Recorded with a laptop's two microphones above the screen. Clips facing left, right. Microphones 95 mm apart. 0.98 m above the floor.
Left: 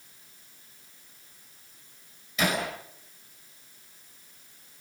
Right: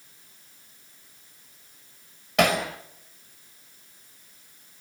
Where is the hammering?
70° right (ahead or behind), 4.5 m.